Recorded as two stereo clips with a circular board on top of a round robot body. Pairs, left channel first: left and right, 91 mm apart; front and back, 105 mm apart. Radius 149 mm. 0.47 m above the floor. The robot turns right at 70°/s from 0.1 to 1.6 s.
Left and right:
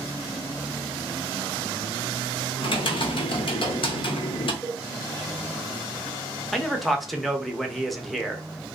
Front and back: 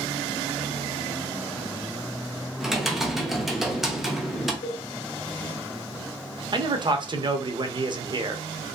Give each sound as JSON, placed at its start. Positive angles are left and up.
{"t": 2.6, "sound": "typing on a keyboard", "azimuth_deg": 95, "distance_m": 0.9}
{"t": 4.6, "sound": "a cowbell", "azimuth_deg": 0, "distance_m": 0.7}
{"t": 6.5, "sound": "a man speaking", "azimuth_deg": 180, "distance_m": 0.8}